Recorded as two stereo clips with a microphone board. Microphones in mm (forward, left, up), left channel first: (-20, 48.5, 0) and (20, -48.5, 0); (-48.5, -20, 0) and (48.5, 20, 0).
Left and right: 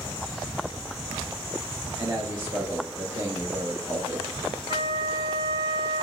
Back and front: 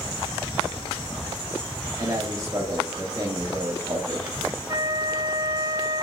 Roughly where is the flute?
Ahead right.